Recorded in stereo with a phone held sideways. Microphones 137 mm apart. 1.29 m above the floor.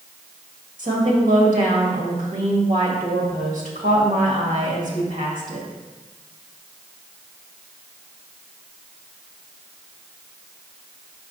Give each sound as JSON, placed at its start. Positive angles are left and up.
{"t": 0.8, "sound": "a woman speaking", "side_deg": -80, "distance_m": 1.7}